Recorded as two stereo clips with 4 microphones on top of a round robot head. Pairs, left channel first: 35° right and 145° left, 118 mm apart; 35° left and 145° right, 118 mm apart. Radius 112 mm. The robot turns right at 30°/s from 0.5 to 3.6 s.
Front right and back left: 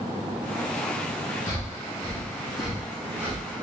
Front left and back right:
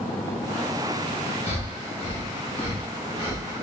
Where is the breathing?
20° left, 1.5 m; by 3.6 s 80° left, 1.5 m.